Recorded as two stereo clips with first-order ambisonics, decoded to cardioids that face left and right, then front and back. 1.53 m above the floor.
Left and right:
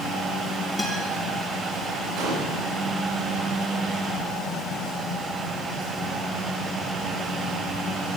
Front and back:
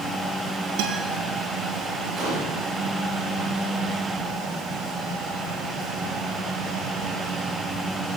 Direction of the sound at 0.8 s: 175° left.